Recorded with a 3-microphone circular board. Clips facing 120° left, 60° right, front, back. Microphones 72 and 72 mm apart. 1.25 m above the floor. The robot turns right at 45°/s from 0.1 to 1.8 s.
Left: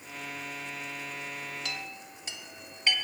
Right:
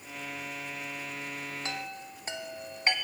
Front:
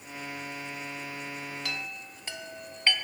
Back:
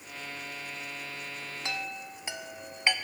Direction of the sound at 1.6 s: 115° right.